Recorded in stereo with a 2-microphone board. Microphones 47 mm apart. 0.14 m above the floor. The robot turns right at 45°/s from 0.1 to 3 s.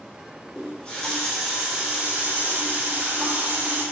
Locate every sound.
0.6 s a running tap: 140° left, 1.1 m; by 3.8 s 110° right, 1.1 m